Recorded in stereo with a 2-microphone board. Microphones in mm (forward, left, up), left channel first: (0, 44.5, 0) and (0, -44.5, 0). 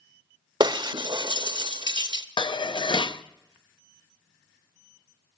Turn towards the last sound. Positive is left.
turn(degrees=65)  # may be behind; listen again after turning